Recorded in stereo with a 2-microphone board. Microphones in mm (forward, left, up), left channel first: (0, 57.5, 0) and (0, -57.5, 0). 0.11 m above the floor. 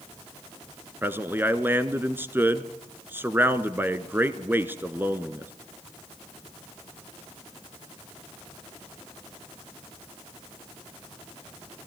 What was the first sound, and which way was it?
A man speaking, 20° right (ahead or behind).